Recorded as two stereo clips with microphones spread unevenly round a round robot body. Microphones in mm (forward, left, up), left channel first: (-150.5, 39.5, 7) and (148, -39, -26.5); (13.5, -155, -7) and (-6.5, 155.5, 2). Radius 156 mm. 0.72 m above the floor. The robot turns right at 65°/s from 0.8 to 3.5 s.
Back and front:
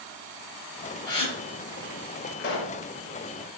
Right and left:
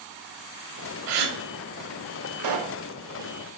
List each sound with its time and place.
1.1 s a gasp: 85° left, 0.9 m; by 1.4 s 105° left, 0.9 m
2.4 s a pop: 110° left, 0.7 m; by 2.8 s 140° left, 0.7 m